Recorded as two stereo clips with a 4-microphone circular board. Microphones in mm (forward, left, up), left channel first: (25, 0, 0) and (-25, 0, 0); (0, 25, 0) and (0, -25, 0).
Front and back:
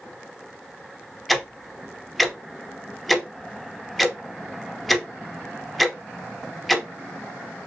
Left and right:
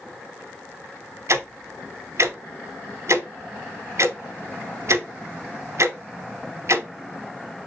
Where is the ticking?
90° right, 0.6 m.